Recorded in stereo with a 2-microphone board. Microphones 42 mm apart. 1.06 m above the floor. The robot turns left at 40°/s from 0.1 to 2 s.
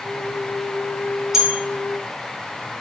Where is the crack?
I don't hear a crack.